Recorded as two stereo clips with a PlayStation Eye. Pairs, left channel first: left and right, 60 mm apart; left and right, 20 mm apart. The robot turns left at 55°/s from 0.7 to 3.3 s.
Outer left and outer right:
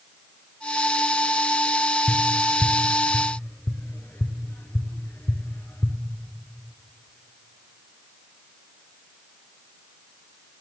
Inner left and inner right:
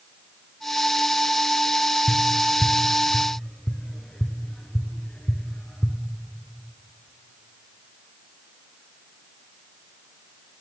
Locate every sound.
2.1 s tapping: 25° left (ahead or behind), 0.5 m; by 6.0 s 35° left (ahead or behind), 0.5 m